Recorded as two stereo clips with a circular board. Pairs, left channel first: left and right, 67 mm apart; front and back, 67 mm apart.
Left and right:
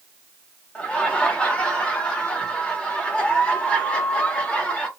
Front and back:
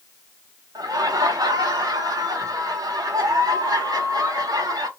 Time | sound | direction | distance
0.8 | laughter | 165° left | 1.3 m